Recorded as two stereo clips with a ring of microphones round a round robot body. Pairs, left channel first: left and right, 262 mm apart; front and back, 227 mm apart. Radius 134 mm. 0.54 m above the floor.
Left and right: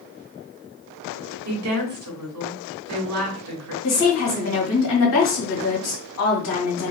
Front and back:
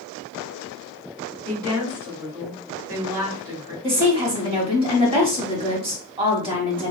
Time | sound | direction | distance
1.4 | a woman speaking | 105° right | 2.5 m
3.8 | a woman speaking | 115° left | 2.5 m